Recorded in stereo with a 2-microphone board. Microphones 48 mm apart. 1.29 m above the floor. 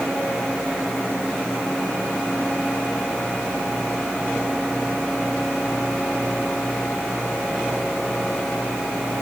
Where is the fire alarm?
No fire alarm in this recording.